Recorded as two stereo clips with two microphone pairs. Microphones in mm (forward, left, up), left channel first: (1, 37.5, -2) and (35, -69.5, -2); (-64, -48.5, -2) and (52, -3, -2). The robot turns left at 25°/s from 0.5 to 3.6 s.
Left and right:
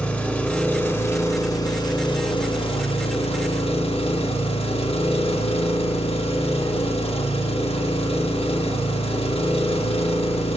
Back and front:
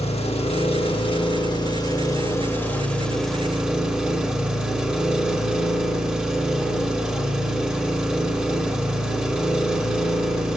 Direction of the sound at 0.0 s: 175° right.